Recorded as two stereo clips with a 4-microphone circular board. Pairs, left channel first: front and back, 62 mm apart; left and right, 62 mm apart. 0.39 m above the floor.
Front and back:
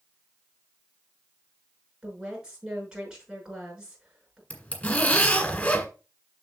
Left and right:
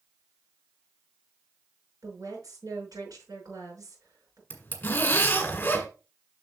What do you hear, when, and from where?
2.0 s a woman speaking: 105° right, 5.5 m
4.5 s a zipper: 45° left, 1.9 m